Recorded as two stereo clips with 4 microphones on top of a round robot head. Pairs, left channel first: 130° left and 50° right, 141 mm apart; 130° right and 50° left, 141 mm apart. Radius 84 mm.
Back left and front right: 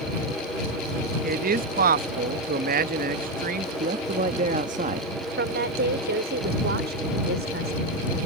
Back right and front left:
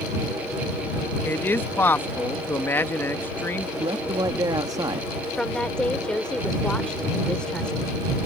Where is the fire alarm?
I don't hear a fire alarm.